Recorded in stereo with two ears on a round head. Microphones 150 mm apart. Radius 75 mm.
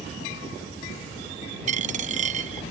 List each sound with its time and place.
1.7 s a dropped coin: 45° right (ahead or behind)